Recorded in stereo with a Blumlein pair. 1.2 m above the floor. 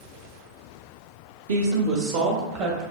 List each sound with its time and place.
1.5 s a woman speaking: 60° right, 0.7 m; by 2.8 s 45° right, 1.3 m